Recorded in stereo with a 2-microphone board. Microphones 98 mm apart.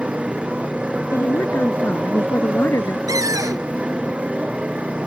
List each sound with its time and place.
0.0 s a motorcycle: 10° right (ahead or behind)
1.1 s a woman speaking: 25° left (ahead or behind)
3.1 s a cupboard door: 35° right (ahead or behind)